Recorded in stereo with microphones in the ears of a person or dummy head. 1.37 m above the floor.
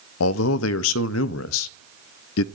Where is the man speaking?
70° left (ahead or behind), 0.5 m.